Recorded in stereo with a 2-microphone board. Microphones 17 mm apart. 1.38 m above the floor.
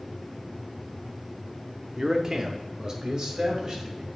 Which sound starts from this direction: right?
A man speaking, at 2.0 s.